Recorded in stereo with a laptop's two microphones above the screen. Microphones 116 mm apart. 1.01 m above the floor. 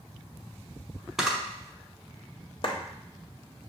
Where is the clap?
50° left (ahead or behind), 0.9 m.